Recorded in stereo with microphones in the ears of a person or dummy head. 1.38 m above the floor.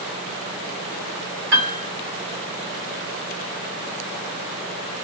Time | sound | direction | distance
1.5 | a piano | 60° right (ahead or behind) | 2 m